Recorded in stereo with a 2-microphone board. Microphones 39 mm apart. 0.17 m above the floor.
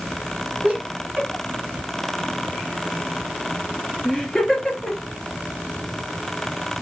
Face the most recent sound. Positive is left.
turn(degrees=0)  # may be behind; listen again after turning